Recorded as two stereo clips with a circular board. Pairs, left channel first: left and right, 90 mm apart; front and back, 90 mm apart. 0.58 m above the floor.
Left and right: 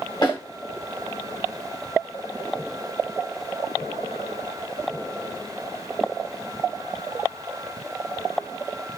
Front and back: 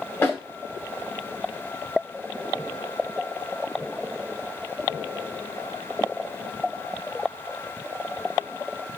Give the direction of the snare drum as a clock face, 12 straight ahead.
10 o'clock.